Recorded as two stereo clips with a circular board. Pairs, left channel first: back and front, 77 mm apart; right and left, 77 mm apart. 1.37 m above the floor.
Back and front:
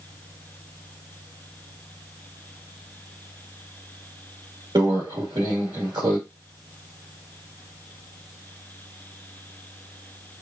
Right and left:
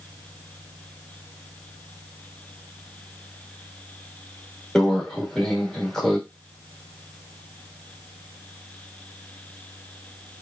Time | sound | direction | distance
4.8 | a microwave | 5° right | 1.3 m